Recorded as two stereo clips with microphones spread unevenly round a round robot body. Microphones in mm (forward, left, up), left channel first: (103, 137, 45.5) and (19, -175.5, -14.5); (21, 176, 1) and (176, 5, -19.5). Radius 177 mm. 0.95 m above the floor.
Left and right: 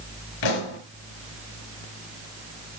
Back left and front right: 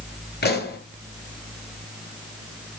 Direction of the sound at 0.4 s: 90° left.